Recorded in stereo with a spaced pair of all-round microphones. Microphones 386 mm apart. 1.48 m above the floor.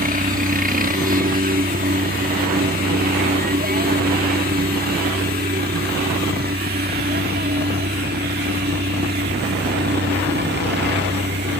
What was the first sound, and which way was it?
A helicopter, 20° right (ahead or behind).